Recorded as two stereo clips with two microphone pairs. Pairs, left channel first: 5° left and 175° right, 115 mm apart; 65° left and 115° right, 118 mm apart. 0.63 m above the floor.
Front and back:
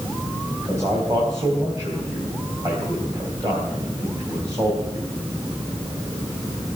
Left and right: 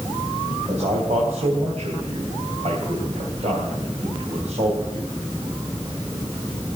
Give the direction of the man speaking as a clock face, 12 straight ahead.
4 o'clock.